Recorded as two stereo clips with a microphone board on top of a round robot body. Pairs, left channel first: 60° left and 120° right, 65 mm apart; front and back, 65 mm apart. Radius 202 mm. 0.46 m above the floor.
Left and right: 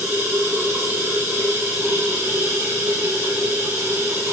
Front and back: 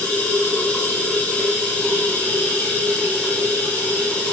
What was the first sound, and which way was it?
Running water, 70° right.